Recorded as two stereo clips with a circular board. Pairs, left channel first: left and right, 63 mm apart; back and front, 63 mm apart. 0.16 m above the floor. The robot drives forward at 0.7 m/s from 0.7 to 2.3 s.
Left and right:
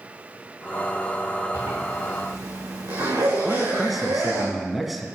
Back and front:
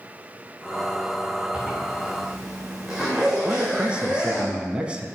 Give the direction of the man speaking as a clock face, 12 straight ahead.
12 o'clock.